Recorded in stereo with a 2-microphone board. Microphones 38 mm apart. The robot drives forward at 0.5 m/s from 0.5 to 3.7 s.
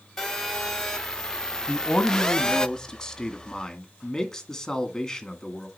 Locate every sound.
0.2 s a phone buzzing: 5° left (ahead or behind), 1.4 m; by 2.7 s 20° left (ahead or behind), 0.5 m
1.7 s a man speaking: 25° left (ahead or behind), 1.2 m; by 5.7 s 15° left (ahead or behind), 2 m